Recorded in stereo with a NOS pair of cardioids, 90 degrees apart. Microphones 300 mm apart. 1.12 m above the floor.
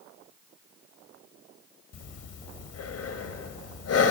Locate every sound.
1.9 s breathing: 55° left, 2.5 m